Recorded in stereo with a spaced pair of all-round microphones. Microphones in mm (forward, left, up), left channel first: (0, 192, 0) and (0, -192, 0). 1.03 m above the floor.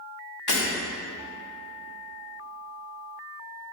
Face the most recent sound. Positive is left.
turn(degrees=80)